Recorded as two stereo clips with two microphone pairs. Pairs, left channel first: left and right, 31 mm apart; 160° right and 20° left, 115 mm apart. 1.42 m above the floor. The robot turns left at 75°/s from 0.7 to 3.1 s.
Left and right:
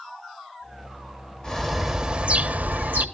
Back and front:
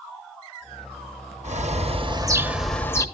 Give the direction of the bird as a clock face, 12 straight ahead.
11 o'clock.